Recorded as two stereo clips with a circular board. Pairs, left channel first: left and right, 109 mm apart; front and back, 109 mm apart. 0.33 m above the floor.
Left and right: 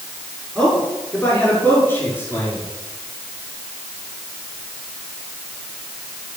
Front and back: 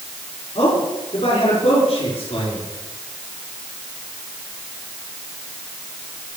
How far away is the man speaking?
About 5.5 m.